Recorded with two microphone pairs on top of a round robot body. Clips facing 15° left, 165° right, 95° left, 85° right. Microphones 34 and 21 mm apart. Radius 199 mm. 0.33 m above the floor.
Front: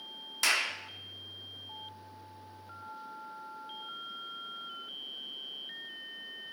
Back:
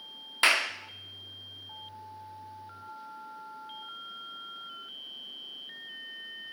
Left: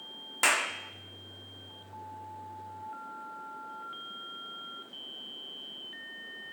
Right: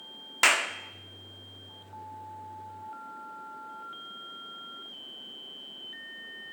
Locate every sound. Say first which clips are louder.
0.4 s a clap: back 5 dB, right 3 dB; 120° right, 1.0 m